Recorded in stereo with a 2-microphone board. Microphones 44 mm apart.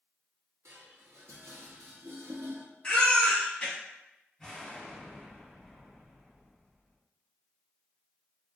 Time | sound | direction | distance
0.7 | dishes clattering | 75° right (ahead or behind) | 0.8 m
2.8 | a baby crying | 20° left (ahead or behind) | 1.2 m
4.4 | an explosion | centre (ahead or behind) | 1.6 m